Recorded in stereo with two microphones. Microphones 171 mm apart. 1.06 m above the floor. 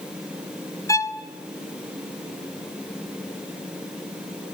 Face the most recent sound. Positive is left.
turn(degrees=20)  # may be behind; listen again after turning